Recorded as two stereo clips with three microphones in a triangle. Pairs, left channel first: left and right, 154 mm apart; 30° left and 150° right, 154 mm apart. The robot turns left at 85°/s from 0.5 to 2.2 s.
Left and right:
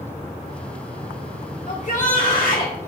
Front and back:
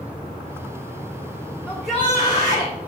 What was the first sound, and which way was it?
A shout, 140° left.